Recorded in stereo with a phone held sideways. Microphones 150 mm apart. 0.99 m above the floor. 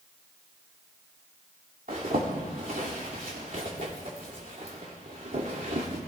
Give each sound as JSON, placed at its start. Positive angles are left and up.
{"t": 1.9, "sound": "a zipper", "side_deg": -70, "distance_m": 3.0}